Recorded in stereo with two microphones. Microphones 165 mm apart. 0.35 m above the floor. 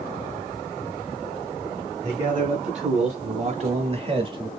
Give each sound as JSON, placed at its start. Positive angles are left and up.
{"t": 2.0, "sound": "a man speaking", "side_deg": -45, "distance_m": 1.9}